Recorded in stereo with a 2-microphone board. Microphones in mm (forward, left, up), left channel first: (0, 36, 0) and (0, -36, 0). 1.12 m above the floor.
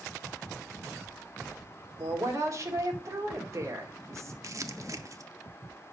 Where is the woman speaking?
45° right (ahead or behind), 2.5 m.